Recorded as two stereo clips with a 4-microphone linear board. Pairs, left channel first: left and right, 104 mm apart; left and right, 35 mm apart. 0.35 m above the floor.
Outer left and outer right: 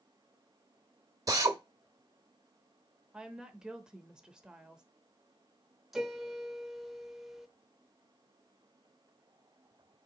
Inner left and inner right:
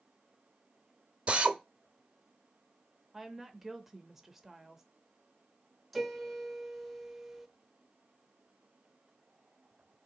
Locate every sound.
1.3 s a drill: 35° right (ahead or behind), 1.0 m
3.1 s a woman speaking: 5° right (ahead or behind), 0.8 m
5.9 s a piano: centre (ahead or behind), 0.7 m